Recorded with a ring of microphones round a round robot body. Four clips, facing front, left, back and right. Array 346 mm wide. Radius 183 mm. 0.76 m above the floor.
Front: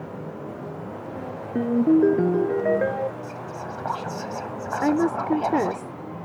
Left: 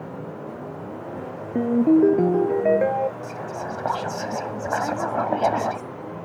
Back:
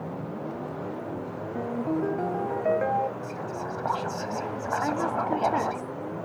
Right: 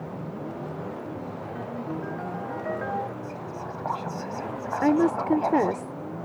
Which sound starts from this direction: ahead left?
A ringtone, at 1.6 s.